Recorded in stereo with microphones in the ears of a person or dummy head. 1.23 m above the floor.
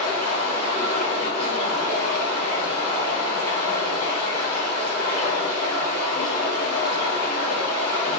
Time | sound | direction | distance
0.0 | running water | 35° left (ahead or behind) | 1.4 m